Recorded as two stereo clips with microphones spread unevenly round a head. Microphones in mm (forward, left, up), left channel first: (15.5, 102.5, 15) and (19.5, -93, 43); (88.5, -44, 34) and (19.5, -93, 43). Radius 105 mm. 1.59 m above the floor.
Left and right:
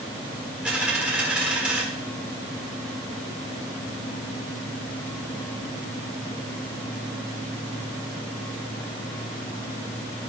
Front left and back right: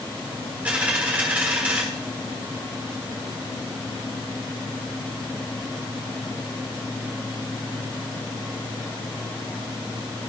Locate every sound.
0.7 s a dropped coin: 145° right, 1.3 m